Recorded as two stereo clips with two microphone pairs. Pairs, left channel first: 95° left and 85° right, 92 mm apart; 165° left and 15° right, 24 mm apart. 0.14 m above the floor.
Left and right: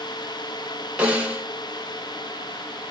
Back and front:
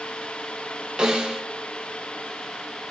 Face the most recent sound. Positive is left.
turn(degrees=-10)